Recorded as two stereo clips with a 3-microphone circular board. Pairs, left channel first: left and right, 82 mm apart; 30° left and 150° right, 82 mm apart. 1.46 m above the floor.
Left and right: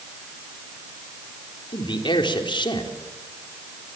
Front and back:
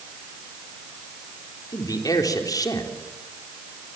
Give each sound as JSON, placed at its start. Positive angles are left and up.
{"t": 1.7, "sound": "a man speaking", "azimuth_deg": 70, "distance_m": 3.5}